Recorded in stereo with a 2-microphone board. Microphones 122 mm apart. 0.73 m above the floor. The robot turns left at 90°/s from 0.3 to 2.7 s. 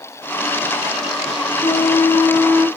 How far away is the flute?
About 1.7 m.